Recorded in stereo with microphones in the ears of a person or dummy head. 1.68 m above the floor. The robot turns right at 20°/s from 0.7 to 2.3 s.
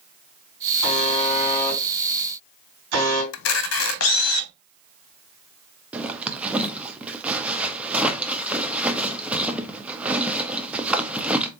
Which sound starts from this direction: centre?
A zipper, at 5.9 s.